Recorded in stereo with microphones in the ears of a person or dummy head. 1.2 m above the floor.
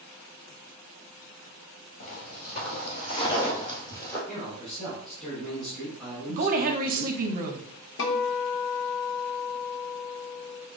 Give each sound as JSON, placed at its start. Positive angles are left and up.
{"t": 2.0, "sound": "footsteps", "side_deg": 45, "distance_m": 1.7}
{"t": 4.3, "sound": "a man speaking", "side_deg": 0, "distance_m": 2.5}
{"t": 6.3, "sound": "a woman speaking", "side_deg": -40, "distance_m": 0.8}
{"t": 8.0, "sound": "a guitar", "side_deg": 65, "distance_m": 1.1}